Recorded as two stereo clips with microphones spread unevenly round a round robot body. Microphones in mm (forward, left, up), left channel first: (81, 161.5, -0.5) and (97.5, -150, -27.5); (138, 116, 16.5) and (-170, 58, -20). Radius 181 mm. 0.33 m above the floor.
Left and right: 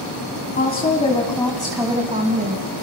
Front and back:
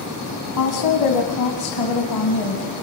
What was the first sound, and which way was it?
A woman speaking, 35° left.